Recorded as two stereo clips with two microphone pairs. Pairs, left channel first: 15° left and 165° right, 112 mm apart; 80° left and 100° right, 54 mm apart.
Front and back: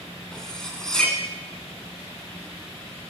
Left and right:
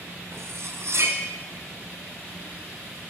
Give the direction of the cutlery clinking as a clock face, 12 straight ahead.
2 o'clock.